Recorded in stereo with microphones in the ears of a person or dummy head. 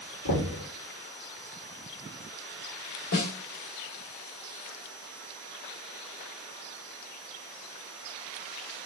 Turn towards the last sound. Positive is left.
turn(degrees=70)  # may be behind; listen again after turning